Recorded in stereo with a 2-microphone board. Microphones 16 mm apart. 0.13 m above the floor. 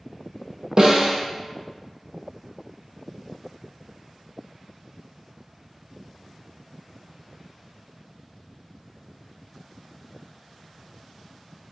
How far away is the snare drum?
About 0.6 m.